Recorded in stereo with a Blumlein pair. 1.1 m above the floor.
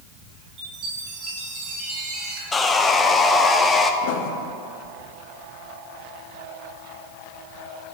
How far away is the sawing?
About 0.7 m.